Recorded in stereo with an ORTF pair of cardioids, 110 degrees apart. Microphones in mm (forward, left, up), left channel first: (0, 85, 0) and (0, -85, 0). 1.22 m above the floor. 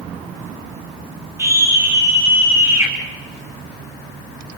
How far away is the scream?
About 9 m.